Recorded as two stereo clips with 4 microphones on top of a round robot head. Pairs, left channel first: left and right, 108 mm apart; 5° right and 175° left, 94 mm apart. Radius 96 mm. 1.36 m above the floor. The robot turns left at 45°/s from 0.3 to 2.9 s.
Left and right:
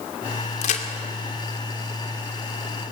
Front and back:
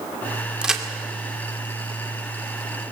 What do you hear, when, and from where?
0.6 s a crack: 100° left, 2 m; by 0.8 s 90° left, 2 m